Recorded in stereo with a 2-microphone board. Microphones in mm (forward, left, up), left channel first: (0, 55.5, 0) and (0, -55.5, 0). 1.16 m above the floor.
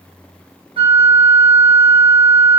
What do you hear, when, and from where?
0.8 s a flute: 50° right (ahead or behind), 0.8 m